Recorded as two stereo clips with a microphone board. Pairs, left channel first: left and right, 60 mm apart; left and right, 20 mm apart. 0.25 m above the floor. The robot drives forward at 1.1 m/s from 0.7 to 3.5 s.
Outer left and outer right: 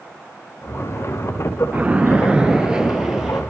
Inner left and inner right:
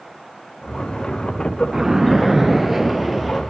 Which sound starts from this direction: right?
A splash, at 1.7 s.